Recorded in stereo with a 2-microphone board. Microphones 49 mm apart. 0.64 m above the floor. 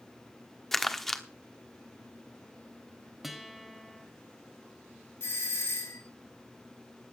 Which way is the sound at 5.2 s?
60° left (ahead or behind).